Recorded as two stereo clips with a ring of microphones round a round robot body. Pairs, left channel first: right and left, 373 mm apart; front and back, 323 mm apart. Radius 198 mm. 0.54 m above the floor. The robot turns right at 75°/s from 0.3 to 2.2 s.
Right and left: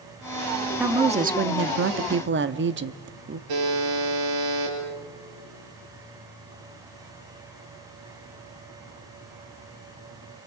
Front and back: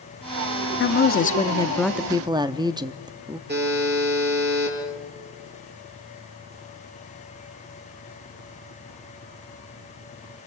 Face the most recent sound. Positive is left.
turn(degrees=120)